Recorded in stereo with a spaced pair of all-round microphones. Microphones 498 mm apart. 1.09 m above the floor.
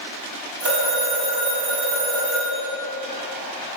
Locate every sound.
0.6 s a phone ringing: 40° right (ahead or behind), 4.5 m